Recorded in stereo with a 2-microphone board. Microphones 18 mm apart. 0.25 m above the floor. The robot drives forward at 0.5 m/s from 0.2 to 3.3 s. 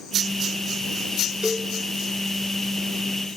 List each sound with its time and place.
1.4 s a cowbell: 60° right (ahead or behind), 1.3 m; by 1.7 s 55° right (ahead or behind), 1.3 m